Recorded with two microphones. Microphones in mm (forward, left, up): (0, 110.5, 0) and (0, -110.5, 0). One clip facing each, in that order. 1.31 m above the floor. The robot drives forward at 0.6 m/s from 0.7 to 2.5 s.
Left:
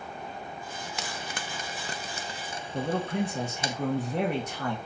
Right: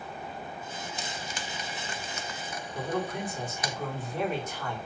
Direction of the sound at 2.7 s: 75° left (ahead or behind).